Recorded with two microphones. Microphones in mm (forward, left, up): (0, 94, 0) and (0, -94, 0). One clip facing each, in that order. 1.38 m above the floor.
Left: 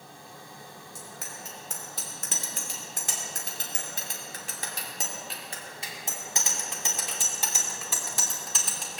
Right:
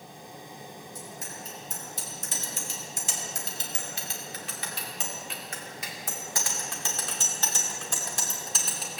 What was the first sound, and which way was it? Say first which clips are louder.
A bicycle bell: right 2 dB; 75° left (ahead or behind).